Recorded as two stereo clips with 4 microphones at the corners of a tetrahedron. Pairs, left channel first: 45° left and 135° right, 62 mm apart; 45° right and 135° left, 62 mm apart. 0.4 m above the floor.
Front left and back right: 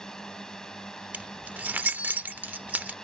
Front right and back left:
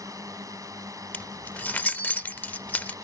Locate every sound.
0.0 s a drone: 125° left
1.1 s keys jangling: 90° right